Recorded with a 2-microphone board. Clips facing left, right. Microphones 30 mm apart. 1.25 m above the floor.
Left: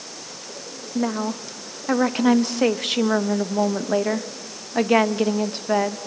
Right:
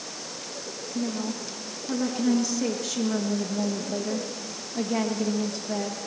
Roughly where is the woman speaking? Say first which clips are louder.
Left 6 dB; left.